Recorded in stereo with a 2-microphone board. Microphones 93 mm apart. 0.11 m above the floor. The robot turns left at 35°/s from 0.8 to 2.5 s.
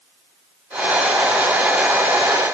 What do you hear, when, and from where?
Only background noise.